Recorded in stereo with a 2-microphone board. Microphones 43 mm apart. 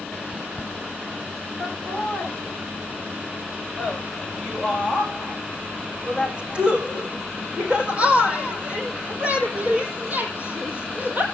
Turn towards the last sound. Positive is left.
turn(degrees=-45)  # may be behind; listen again after turning